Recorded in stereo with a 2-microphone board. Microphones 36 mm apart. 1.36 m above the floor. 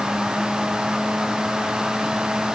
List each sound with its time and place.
Only background noise.